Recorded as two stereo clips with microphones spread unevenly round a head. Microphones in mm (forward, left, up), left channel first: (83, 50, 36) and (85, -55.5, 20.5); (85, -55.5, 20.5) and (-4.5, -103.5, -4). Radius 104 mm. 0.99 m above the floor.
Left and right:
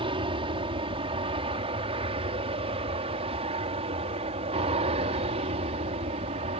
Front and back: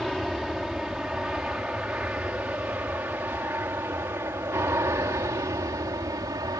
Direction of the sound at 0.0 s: 65° right.